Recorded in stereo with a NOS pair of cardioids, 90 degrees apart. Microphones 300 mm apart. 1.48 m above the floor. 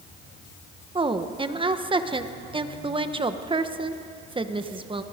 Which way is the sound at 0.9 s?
15° right.